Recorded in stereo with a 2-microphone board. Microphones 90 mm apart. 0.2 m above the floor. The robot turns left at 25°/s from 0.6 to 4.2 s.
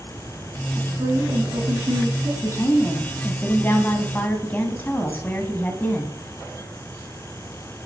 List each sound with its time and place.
0.8 s a woman speaking: 45° right, 1.6 m; by 2.3 s 85° right, 1.6 m
2.4 s a woman speaking: 30° left (ahead or behind), 1.3 m; by 6.2 s 20° left (ahead or behind), 1.3 m